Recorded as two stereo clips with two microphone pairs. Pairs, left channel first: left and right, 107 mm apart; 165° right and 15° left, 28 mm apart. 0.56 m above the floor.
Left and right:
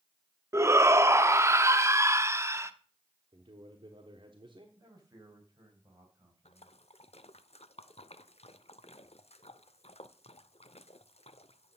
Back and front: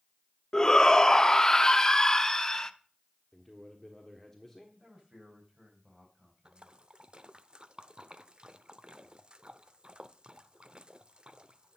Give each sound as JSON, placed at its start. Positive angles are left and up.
{"t": 0.5, "sound": "a shout", "azimuth_deg": -115, "distance_m": 0.7}
{"t": 3.3, "sound": "a man speaking", "azimuth_deg": -80, "distance_m": 1.3}
{"t": 4.8, "sound": "a man speaking", "azimuth_deg": -40, "distance_m": 4.0}
{"t": 6.5, "sound": "a splash", "azimuth_deg": 70, "distance_m": 0.6}